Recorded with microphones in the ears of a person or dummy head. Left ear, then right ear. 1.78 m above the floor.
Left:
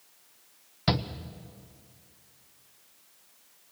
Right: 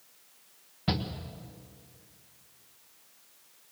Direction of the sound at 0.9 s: 65° left (ahead or behind).